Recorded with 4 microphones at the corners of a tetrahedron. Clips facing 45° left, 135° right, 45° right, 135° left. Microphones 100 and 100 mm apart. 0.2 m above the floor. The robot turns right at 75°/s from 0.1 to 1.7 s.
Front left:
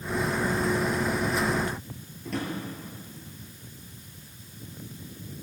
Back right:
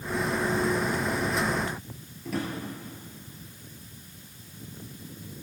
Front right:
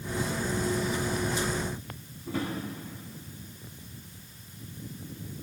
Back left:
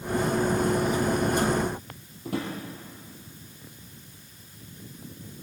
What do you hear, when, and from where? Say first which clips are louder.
2.2 s a drawer: even, back left 1 dB; 140° left, 3 m